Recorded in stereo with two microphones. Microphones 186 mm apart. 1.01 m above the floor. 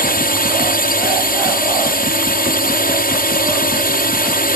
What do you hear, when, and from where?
0.0 s a drone: 55° left (ahead or behind)